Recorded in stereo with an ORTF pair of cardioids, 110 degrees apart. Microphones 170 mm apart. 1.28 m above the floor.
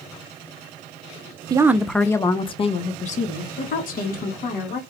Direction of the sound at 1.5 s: 25° right.